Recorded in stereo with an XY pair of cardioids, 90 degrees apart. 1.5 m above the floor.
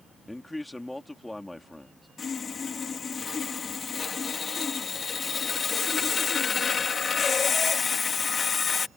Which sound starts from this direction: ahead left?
Sawing, at 2.2 s.